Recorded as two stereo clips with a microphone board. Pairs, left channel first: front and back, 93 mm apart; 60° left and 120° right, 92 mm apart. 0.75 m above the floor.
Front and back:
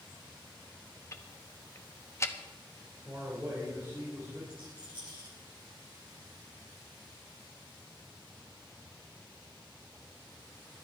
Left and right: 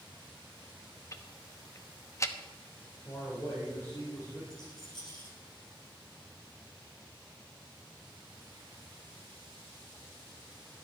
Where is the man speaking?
115° left, 4 m.